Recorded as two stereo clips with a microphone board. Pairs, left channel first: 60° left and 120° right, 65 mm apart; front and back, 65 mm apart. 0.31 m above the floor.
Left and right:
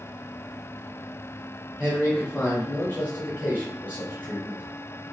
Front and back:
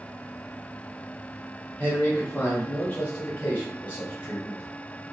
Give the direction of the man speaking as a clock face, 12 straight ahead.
11 o'clock.